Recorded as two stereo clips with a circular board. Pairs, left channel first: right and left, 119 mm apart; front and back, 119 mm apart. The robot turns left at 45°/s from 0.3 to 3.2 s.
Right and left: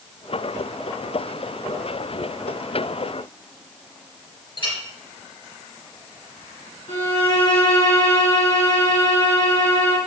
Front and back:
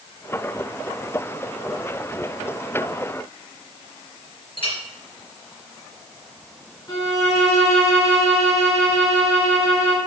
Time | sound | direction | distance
4.6 | a clink | 45° right | 3 m
6.9 | a violin | 60° right | 3.5 m